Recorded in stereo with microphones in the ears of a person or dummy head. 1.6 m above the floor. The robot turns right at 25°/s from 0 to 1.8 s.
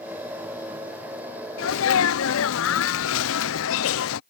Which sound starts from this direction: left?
A sneeze, at 1.6 s.